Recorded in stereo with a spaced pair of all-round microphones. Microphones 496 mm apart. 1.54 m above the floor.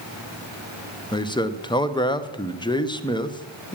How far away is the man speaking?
About 0.7 m.